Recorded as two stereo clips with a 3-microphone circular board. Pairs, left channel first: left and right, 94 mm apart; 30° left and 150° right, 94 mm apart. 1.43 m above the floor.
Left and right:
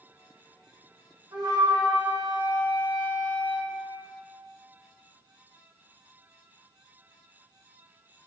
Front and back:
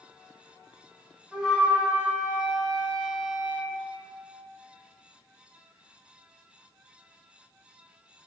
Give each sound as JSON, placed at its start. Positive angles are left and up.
{"t": 1.3, "sound": "a flute", "azimuth_deg": -70, "distance_m": 1.9}